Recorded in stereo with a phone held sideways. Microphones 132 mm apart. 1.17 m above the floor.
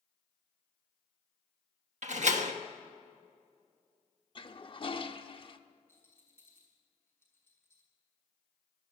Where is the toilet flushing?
40° left (ahead or behind), 0.9 m.